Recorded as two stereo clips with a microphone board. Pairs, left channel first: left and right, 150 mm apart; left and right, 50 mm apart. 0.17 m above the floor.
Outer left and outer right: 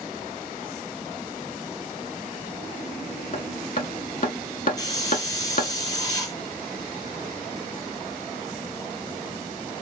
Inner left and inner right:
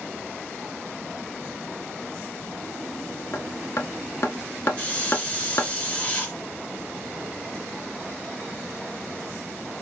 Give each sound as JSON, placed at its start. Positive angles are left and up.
{"t": 3.3, "sound": "hammering", "side_deg": 60, "distance_m": 0.7}
{"t": 4.8, "sound": "a hiss", "side_deg": 25, "distance_m": 2.5}